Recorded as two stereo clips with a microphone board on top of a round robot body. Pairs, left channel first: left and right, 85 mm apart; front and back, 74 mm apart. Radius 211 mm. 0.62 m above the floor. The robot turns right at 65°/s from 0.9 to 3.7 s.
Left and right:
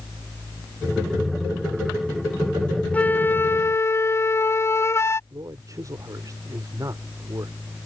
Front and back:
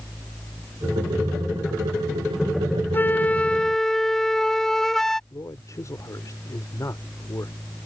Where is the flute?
30° left; by 5.2 s 80° left.